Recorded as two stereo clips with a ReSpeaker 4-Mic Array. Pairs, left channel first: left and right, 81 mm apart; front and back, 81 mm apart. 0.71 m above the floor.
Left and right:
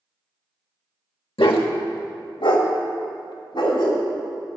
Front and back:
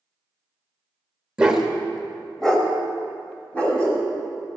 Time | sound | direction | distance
1.4 | a dog barking | 100° left | 1.0 m